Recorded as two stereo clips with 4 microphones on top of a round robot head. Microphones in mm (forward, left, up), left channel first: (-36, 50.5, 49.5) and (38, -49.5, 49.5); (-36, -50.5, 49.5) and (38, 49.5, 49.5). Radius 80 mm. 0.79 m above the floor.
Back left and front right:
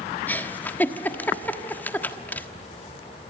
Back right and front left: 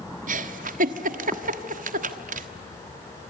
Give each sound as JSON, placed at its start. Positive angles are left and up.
{"t": 0.3, "sound": "a giggle", "azimuth_deg": 50, "distance_m": 1.4}